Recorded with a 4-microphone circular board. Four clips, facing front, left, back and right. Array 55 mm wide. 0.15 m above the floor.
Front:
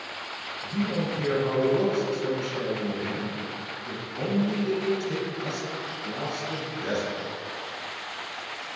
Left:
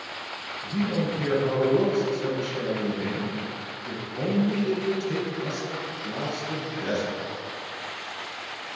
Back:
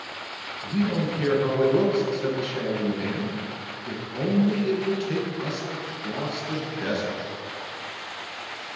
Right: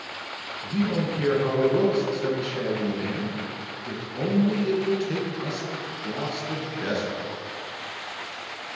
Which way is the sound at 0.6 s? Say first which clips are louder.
Right 1 dB, back 3 dB; 145° right.